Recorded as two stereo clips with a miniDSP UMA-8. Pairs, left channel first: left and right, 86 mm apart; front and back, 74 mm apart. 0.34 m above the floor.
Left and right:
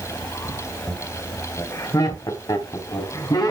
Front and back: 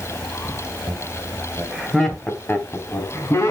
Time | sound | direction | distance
0.9 | laughter | 165° left | 1.5 m